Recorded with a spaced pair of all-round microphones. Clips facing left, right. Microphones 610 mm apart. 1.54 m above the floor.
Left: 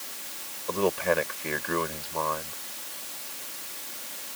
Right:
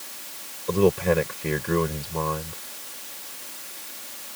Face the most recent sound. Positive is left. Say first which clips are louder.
# right 6 dB
turn(degrees=-60)  # may be behind; listen again after turning